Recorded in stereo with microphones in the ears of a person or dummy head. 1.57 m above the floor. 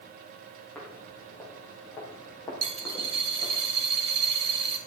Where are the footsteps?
5° left (ahead or behind), 5 m; by 3.6 s 20° left (ahead or behind), 4.5 m.